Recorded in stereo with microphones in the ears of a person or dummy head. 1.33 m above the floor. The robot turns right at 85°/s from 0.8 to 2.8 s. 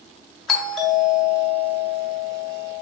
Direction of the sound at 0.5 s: 5° left (ahead or behind).